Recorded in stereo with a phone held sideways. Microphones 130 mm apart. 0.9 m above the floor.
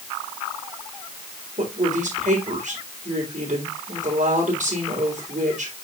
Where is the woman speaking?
80° right, 4 m.